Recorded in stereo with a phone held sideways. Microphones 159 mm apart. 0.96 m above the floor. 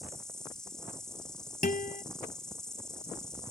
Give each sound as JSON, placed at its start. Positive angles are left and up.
{"t": 0.0, "sound": "an insect", "side_deg": 5}
{"t": 1.6, "sound": "a guitar", "side_deg": 60}